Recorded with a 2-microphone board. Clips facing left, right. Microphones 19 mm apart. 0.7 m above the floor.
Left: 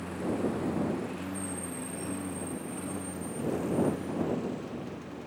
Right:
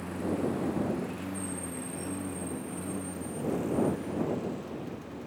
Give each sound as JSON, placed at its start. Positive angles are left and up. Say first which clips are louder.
{"t": 0.0, "sound": "a lawn mower", "louder": "even", "side_deg": 10}